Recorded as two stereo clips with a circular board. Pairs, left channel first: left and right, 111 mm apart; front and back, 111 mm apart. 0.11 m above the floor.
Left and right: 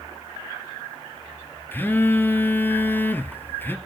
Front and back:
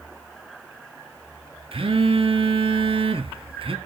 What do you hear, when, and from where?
1.7 s a phone buzzing: 160° left, 0.9 m